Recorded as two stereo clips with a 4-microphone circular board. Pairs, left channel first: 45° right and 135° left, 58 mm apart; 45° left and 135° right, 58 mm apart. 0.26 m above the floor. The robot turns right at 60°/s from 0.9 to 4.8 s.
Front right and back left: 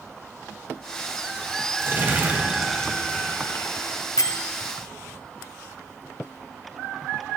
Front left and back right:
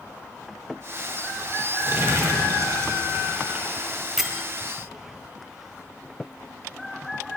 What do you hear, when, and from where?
1.8 s crumpling: 175° left, 3 m; by 4.4 s 35° right, 3 m
4.2 s a bell: 50° right, 0.5 m; by 4.4 s 35° right, 0.5 m